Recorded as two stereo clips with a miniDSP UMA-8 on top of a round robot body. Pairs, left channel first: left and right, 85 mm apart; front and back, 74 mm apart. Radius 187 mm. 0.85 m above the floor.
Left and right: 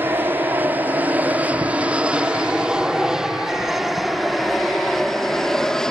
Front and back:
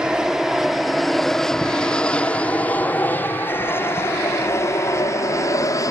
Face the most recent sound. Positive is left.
turn(degrees=10)